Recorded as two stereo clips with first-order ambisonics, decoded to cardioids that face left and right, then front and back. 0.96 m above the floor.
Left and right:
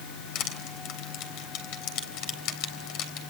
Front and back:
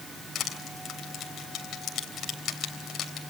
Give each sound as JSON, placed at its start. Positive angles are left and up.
{"t": 0.3, "sound": "crushing", "azimuth_deg": 60, "distance_m": 3.5}